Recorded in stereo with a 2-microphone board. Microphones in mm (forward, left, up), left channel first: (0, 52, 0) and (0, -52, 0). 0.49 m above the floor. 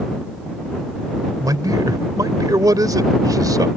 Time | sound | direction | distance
1.4 | a man speaking | 35° right (ahead or behind) | ?